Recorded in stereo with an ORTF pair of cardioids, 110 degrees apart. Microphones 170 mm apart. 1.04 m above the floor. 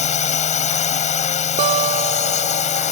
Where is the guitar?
40° right.